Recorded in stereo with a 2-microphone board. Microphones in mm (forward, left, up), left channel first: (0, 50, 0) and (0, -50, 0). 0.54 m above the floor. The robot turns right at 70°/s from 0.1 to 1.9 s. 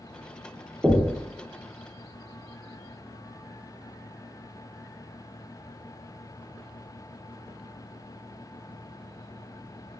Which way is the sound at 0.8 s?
10° right (ahead or behind).